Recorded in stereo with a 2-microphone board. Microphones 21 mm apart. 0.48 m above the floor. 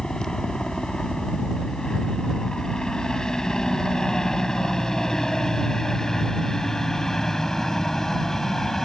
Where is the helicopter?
40° left (ahead or behind); by 8.9 s 20° left (ahead or behind).